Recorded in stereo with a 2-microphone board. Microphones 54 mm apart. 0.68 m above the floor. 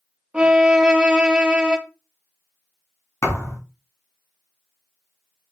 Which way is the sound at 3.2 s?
75° left (ahead or behind).